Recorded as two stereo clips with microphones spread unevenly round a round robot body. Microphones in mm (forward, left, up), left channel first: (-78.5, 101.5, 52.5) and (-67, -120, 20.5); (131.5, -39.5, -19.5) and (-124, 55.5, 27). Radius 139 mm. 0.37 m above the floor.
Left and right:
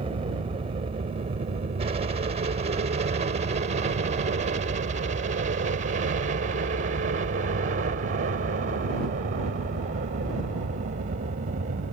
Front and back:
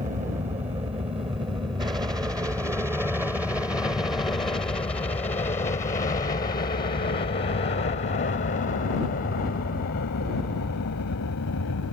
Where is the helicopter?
135° right; by 11.9 s 45° right.